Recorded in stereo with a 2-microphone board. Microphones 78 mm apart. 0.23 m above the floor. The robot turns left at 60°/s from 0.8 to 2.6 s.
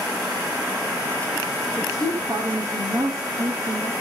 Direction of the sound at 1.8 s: 15° right.